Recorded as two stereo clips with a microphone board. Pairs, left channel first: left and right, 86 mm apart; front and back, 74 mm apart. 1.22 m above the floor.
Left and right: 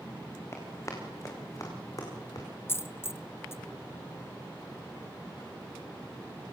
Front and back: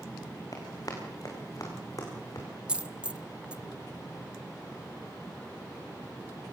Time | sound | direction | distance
0.5 | running footsteps | 35° left | 5 m
2.7 | a dropped coin | 115° left | 0.6 m